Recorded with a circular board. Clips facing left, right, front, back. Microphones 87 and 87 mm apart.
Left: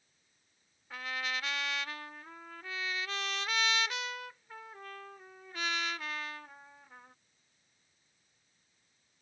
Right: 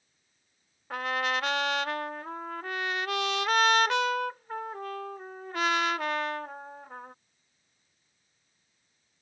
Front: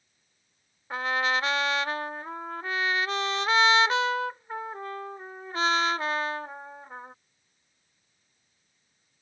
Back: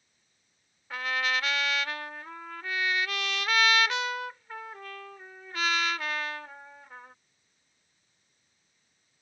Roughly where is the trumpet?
Ahead right.